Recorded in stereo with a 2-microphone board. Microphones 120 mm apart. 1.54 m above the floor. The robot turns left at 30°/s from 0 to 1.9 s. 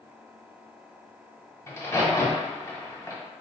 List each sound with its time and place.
1.7 s a crack: 25° left (ahead or behind), 1.6 m